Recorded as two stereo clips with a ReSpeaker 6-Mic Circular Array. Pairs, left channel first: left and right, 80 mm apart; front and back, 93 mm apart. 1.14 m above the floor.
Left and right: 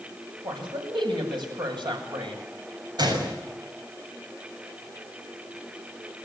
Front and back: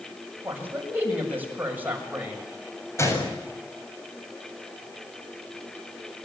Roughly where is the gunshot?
Ahead right.